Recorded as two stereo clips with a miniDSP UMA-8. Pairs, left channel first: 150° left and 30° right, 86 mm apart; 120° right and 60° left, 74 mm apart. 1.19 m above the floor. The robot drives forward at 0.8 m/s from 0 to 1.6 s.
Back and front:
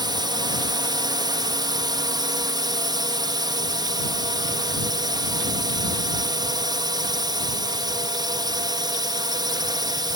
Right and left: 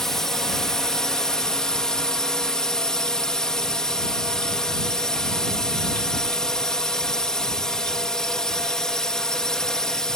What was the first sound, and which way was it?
A drone, 35° right.